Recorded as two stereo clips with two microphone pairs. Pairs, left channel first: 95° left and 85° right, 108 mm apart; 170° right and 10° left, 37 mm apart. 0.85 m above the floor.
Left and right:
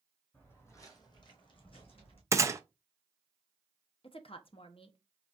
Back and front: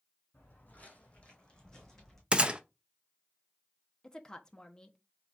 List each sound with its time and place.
0.3 s footsteps: 170° left, 1.6 m; by 2.2 s 115° left, 2.5 m
2.3 s a gunshot: 35° right, 0.5 m
4.0 s a woman speaking: 120° left, 0.8 m